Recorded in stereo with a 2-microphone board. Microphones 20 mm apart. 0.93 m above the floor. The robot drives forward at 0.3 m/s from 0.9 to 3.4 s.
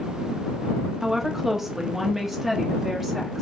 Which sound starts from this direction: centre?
A woman speaking, at 1.0 s.